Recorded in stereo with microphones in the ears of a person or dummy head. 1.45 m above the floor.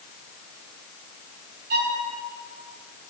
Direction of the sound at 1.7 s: 60° right (ahead or behind).